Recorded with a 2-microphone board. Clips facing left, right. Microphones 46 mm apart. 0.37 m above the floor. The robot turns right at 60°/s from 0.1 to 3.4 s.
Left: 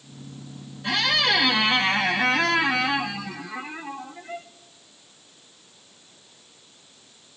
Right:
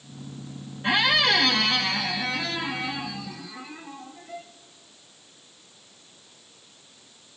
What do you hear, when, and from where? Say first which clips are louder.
0.8 s a squeak: right 1 dB; 25° right, 0.6 m; by 4.5 s 130° left, 0.6 m